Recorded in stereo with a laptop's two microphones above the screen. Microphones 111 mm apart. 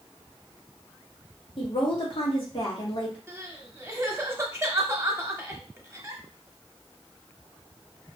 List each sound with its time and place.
1.6 s a woman speaking: 50° left (ahead or behind), 1.3 m
3.3 s crying: 25° right (ahead or behind), 0.8 m